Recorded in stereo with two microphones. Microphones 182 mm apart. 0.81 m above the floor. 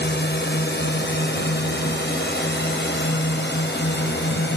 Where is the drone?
70° left (ahead or behind); by 4.6 s 75° left (ahead or behind).